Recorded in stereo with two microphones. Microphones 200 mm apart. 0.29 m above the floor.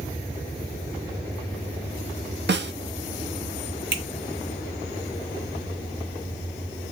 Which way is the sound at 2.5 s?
60° right (ahead or behind).